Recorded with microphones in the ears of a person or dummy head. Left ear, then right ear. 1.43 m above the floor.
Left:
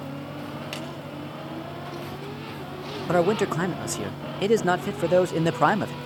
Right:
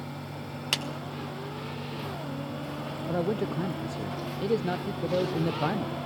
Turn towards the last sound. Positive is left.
turn(degrees=50)  # may be behind; listen again after turning